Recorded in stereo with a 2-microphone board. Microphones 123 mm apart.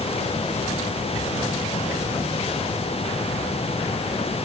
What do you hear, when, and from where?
Only background noise.